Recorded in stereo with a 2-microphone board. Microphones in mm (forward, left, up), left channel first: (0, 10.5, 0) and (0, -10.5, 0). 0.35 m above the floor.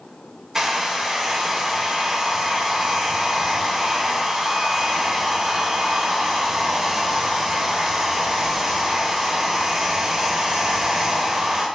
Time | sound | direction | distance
0.6 | a hair dryer | 25° right (ahead or behind) | 0.6 m